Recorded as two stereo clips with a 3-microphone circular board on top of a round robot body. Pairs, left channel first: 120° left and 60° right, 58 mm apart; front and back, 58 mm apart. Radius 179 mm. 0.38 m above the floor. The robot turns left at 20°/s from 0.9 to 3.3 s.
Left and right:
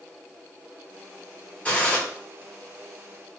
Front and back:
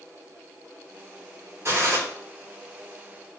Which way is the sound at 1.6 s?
175° left.